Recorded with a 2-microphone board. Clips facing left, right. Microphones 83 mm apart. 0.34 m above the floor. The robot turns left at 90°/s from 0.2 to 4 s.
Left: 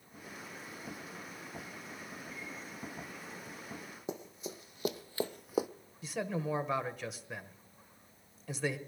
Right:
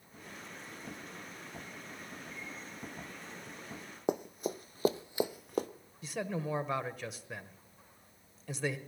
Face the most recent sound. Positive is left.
turn(degrees=0)  # may be behind; listen again after turning